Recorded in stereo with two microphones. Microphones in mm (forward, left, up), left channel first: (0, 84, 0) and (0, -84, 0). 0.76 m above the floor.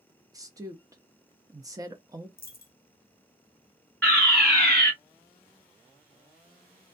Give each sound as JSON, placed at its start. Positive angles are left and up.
{"t": 0.3, "sound": "a woman speaking", "side_deg": -20, "distance_m": 0.7}
{"t": 2.4, "sound": "a dropped coin", "side_deg": 60, "distance_m": 0.5}
{"t": 4.0, "sound": "a fire alarm", "side_deg": 5, "distance_m": 1.9}